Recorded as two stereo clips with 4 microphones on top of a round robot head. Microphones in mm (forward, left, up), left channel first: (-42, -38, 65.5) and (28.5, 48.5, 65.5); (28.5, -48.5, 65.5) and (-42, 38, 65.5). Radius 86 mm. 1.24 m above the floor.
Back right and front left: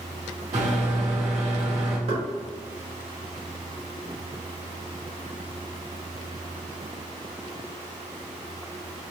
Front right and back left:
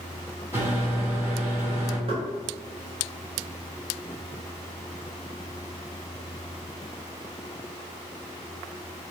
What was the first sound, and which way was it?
A microwave, 60° left.